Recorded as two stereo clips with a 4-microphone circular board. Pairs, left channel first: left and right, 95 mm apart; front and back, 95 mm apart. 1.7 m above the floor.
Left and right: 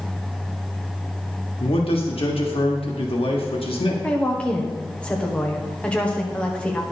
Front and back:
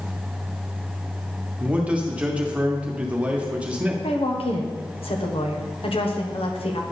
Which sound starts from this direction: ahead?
A woman speaking, at 4.0 s.